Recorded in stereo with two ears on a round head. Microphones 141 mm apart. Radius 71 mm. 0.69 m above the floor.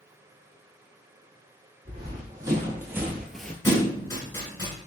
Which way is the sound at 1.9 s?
25° right (ahead or behind).